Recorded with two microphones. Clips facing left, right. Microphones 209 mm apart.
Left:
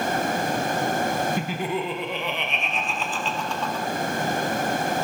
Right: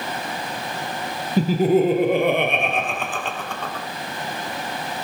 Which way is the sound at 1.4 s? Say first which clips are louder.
Right 10 dB; 35° right (ahead or behind).